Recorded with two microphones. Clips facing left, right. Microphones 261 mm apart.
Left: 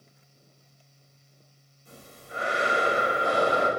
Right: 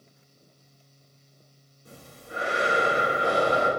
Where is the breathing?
85° right, 3 m.